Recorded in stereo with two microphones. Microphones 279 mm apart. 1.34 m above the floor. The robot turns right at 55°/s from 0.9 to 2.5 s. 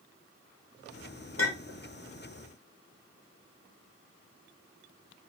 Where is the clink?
55° left (ahead or behind), 0.8 m; by 1.8 s 50° left (ahead or behind), 0.8 m.